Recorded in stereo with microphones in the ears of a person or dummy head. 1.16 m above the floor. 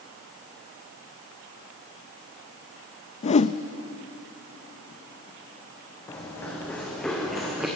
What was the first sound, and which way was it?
A whoosh, 35° left (ahead or behind).